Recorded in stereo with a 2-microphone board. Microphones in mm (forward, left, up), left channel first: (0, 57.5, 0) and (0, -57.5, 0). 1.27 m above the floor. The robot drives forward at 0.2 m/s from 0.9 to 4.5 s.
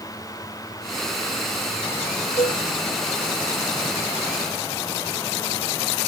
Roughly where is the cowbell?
Left.